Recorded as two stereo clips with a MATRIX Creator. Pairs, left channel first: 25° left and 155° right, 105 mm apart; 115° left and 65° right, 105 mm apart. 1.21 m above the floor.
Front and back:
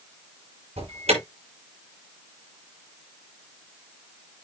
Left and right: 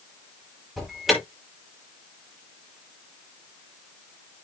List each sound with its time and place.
0.8 s an alarm: 155° right, 6 m